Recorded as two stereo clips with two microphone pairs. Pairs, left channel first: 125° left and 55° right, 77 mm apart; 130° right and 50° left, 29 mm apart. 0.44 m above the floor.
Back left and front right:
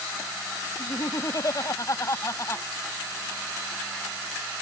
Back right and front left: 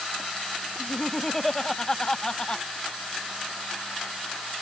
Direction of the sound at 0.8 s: 145° left.